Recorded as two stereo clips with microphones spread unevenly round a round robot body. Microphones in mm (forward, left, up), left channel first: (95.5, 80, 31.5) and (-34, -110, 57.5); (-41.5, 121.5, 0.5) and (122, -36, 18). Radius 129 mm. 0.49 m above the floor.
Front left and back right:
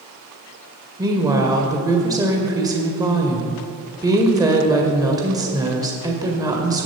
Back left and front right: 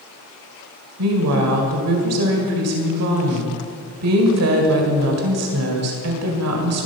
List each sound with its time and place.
1.0 s a woman speaking: 50° right, 2 m